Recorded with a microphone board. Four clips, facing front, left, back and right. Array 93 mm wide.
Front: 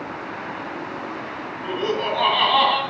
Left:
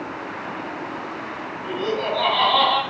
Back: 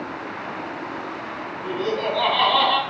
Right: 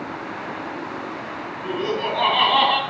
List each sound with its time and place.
1.6 s laughter: 15° right, 1.7 m; by 2.8 s 80° right, 1.7 m